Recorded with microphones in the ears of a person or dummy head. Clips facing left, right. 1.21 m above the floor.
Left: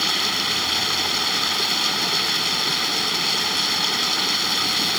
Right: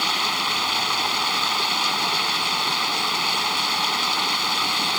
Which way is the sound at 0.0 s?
20° left (ahead or behind).